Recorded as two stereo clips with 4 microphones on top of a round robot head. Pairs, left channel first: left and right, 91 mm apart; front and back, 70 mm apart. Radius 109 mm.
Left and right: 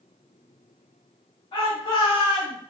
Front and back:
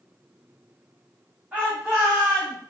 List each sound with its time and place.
1.5 s a shout: 115° left, 3 m; by 2.6 s 130° left, 2.5 m